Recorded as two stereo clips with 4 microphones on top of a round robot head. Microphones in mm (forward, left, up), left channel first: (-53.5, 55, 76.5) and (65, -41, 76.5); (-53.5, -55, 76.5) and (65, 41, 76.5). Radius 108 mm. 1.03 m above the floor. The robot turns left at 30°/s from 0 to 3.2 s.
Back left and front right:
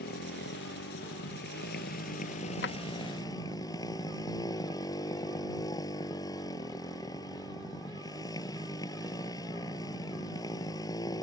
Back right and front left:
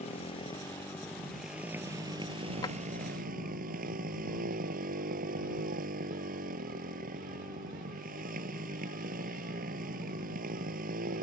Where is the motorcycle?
170° left; by 11.2 s 75° left.